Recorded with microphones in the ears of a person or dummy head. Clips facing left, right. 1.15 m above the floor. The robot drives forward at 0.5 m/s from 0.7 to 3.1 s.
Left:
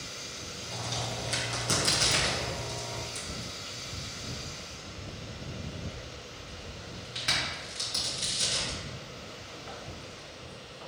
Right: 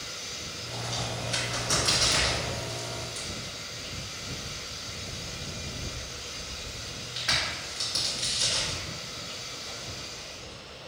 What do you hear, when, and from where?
0.7 s a crack: 60° left (ahead or behind), 1.5 m; by 10.9 s 45° left (ahead or behind), 1.9 m